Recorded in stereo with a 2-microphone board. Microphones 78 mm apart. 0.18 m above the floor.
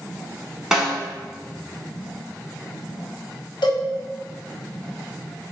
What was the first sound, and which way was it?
A snare drum, 5° right (ahead or behind).